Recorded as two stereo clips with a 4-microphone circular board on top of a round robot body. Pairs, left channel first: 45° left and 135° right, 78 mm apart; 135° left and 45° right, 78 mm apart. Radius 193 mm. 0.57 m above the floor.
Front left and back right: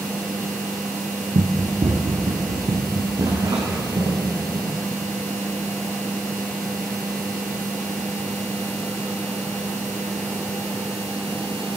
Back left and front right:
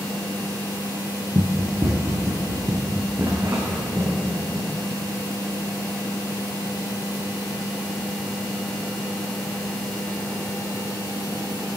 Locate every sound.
1.4 s running footsteps: 105° right, 1.1 m; by 4.7 s 100° right, 3.5 m